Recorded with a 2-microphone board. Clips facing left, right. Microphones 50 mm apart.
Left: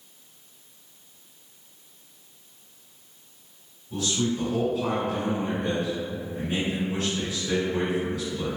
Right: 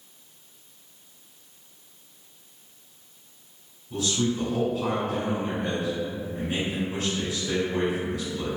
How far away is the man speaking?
About 1.9 m.